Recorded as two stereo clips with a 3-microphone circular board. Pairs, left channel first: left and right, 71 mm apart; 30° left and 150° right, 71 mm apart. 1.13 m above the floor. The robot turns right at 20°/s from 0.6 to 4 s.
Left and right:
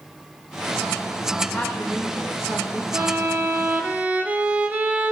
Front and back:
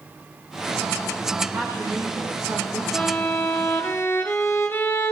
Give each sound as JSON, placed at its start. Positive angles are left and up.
{"t": 1.5, "sound": "a woman speaking", "azimuth_deg": 160, "distance_m": 2.5}
{"t": 2.9, "sound": "a violin", "azimuth_deg": -45, "distance_m": 1.0}